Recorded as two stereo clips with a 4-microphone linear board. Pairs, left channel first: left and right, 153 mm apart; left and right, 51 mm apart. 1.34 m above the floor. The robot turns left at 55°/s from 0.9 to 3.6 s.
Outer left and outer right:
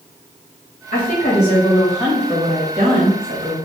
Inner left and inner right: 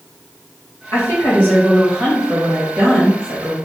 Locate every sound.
0.9 s a woman speaking: 60° left, 1.6 m; by 3.6 s 85° right, 1.6 m